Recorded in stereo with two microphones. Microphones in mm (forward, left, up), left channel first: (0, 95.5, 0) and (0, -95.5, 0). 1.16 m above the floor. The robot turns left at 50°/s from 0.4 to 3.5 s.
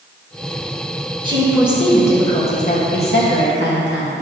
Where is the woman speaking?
150° right, 1.6 m; by 4.1 s 95° left, 1.6 m.